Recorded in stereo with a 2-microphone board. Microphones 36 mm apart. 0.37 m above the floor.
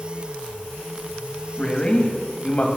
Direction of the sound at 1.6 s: 30° left (ahead or behind).